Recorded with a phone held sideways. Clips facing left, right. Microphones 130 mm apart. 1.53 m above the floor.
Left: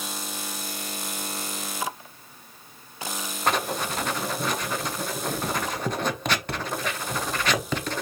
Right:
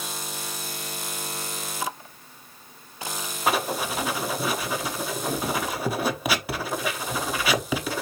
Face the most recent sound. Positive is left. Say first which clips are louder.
# right 1 dB
turn(degrees=-5)  # may be behind; listen again after turning